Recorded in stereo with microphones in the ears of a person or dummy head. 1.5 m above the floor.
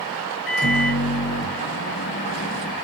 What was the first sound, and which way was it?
A microwave, 50° left (ahead or behind).